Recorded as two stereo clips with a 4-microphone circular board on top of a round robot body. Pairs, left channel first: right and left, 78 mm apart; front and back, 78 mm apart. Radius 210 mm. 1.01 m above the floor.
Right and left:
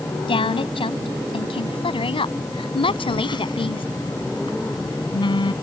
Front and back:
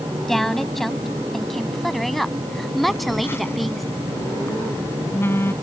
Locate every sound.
0.3 s a woman speaking: 85° right; by 3.8 s 90° right
2.8 s a phone buzzing: 60° right